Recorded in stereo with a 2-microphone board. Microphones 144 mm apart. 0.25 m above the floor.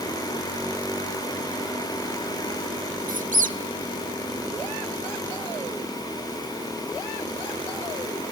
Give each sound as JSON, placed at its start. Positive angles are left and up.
{"t": 3.1, "sound": "a squeak", "side_deg": -70, "distance_m": 0.5}